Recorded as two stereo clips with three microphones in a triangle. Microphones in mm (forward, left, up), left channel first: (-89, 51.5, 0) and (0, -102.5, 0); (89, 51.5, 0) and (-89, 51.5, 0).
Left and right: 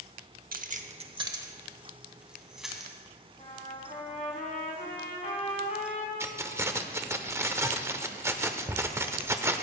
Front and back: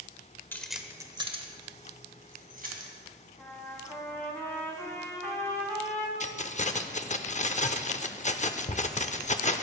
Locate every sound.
0.5 s keys jangling: 75° right, 0.7 m; by 2.9 s 150° right, 2 m
3.4 s a trumpet: 80° left, 3 m
6.2 s keys jangling: 10° left, 0.6 m